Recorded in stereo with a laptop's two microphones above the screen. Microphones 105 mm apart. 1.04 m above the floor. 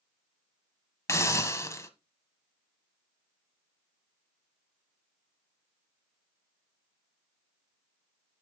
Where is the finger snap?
No finger snap in this recording.